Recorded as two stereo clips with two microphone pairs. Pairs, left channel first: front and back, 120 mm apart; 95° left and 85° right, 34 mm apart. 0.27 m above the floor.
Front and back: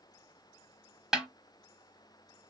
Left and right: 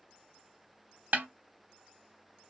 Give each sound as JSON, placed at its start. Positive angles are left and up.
{"t": 1.1, "sound": "a snare drum", "azimuth_deg": -95, "distance_m": 0.7}